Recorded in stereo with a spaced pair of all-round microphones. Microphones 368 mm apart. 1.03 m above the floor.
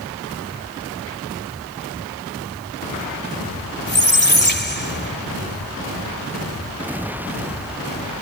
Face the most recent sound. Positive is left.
turn(degrees=25)  # may be behind; listen again after turning